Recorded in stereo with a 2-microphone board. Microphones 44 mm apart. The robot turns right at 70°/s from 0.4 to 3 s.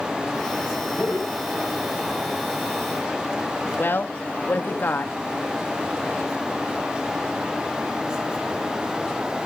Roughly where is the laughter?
Left.